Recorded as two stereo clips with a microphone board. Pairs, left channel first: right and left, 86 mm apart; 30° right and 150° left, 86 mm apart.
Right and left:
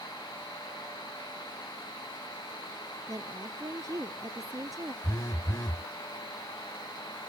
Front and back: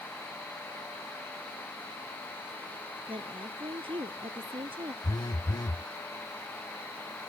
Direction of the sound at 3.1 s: 140° left.